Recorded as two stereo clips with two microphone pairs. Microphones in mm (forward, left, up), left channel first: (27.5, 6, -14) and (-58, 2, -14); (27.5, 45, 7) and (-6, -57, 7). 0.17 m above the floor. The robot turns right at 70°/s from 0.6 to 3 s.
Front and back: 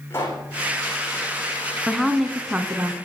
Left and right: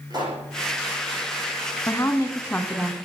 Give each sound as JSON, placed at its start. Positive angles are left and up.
{"t": 0.1, "sound": "a pop", "azimuth_deg": -60, "distance_m": 10.0}
{"t": 1.9, "sound": "a woman speaking", "azimuth_deg": 80, "distance_m": 1.6}